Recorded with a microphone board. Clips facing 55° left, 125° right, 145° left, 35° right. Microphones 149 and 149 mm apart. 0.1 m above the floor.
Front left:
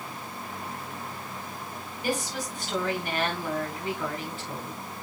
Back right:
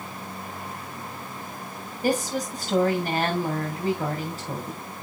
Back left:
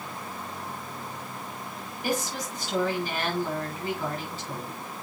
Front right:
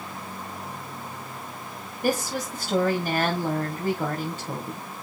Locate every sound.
2.0 s a woman speaking: 75° right, 6 m